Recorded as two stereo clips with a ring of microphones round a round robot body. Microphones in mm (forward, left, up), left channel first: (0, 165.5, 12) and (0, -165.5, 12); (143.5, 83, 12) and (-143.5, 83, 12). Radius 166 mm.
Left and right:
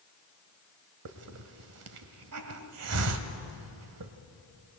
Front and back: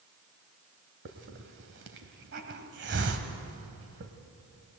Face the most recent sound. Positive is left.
turn(degrees=-125)